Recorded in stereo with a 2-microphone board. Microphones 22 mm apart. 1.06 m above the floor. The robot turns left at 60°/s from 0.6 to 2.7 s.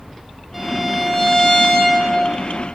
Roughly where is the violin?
Behind.